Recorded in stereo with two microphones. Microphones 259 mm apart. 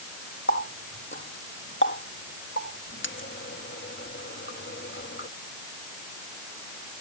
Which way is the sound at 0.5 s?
45° left (ahead or behind).